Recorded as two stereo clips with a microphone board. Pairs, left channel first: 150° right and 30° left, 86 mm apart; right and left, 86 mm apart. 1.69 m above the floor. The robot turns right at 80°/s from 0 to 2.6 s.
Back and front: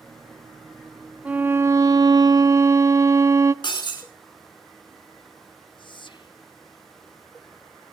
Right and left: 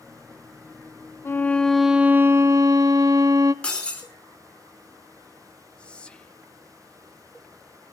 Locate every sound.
1.2 s a violin: 40° right, 0.7 m; by 3.5 s 65° left, 0.7 m
3.6 s breaking glass: 170° right, 4.5 m
5.8 s whispering: 170° right, 0.8 m